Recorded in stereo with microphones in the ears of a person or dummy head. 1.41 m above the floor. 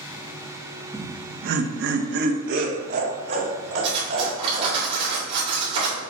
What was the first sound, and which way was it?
Laughter, 20° right (ahead or behind).